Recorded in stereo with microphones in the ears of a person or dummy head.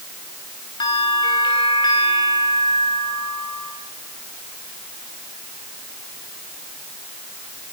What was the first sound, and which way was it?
A bell, 20° left (ahead or behind).